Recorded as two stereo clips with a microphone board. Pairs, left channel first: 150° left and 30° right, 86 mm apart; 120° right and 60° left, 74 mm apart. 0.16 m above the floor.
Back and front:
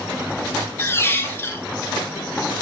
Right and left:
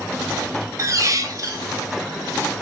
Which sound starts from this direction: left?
A squeak, at 0.8 s.